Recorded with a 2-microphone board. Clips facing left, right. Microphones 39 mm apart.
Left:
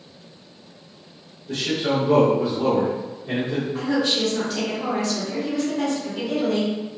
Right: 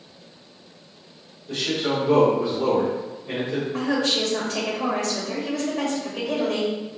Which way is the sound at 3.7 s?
70° right (ahead or behind).